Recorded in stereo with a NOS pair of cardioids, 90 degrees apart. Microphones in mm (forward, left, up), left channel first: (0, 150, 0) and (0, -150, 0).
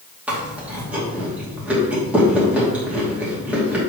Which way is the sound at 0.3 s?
5° right.